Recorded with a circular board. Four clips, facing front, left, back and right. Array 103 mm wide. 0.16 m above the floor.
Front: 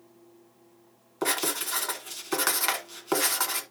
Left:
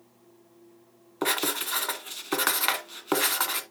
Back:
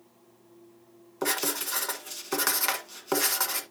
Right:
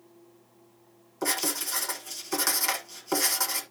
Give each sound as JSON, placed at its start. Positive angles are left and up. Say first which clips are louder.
{"t": 1.2, "sound": "writing", "louder": "left 3 dB, front 1 dB", "azimuth_deg": 75, "distance_m": 1.5}